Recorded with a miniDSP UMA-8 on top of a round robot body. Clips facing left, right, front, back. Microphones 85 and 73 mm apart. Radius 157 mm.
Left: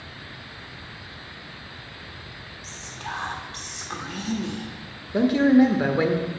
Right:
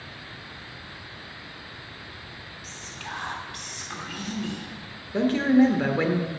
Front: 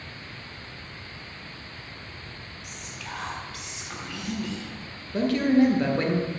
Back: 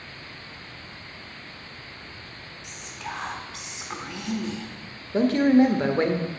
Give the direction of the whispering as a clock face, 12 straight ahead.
8 o'clock.